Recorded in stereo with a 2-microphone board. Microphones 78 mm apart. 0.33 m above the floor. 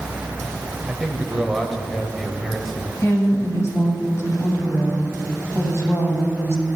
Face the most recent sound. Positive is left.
turn(degrees=40)  # may be behind; listen again after turning